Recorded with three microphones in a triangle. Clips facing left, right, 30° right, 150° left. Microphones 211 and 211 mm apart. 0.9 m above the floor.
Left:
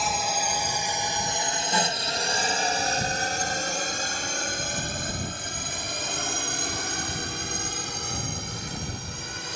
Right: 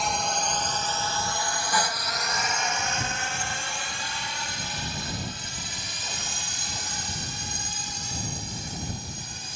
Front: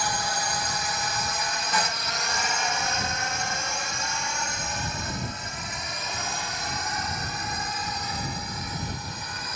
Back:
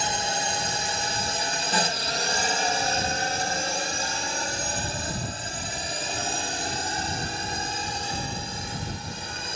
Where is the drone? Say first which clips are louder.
Even, back 1 dB; 175° left; by 9.6 s 90° left.